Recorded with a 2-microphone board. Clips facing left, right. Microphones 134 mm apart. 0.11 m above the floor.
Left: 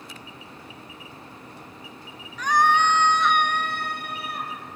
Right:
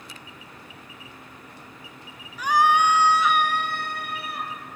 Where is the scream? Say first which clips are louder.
Right 1 dB; 10° right (ahead or behind), 1.3 m; by 4.5 s centre (ahead or behind), 2.5 m.